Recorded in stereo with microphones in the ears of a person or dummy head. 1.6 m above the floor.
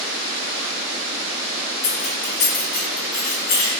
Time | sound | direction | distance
1.8 | keys jangling | 55° left (ahead or behind) | 1.4 m